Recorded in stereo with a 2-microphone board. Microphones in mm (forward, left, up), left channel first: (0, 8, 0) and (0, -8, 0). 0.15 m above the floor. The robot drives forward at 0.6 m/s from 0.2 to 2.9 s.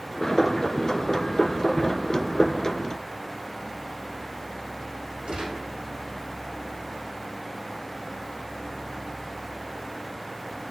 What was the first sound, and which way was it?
A gunshot, 75° right (ahead or behind).